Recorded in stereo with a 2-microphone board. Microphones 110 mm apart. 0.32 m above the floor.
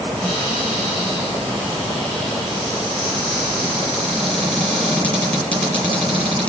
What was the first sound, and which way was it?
A cupboard door, 10° left (ahead or behind).